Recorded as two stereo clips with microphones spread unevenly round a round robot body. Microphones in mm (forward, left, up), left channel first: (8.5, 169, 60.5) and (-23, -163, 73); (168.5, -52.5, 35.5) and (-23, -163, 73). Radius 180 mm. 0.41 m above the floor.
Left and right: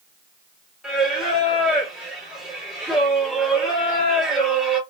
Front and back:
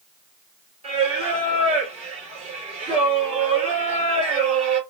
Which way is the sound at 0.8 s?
175° left.